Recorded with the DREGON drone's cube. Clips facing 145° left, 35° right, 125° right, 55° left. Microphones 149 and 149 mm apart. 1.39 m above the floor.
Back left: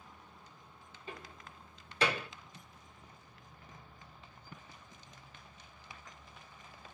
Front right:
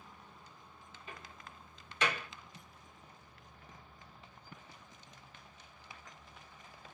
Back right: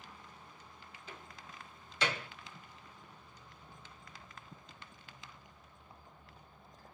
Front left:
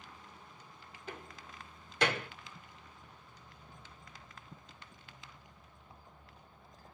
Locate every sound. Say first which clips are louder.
1.1 s a door slam: back left 4 dB, front left 5 dB; 90° left, 2 m